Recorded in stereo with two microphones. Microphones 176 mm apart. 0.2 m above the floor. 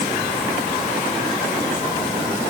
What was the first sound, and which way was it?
Only background noise.